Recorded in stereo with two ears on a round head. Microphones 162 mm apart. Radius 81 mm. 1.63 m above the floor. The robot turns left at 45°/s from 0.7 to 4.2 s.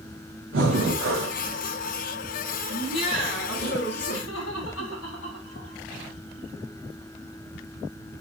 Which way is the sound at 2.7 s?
160° left.